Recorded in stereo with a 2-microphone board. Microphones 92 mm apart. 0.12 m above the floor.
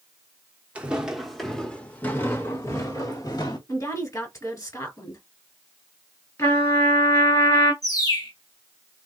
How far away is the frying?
I don't hear frying.